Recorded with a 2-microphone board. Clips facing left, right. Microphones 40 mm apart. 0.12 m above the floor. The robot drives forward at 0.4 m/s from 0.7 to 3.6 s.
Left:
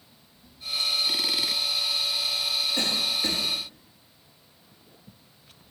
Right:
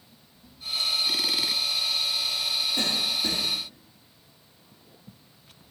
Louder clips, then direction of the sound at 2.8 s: Even; 55° left (ahead or behind).